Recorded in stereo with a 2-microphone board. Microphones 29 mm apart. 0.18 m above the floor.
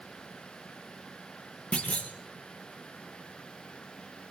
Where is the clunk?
40° left (ahead or behind), 3.5 m.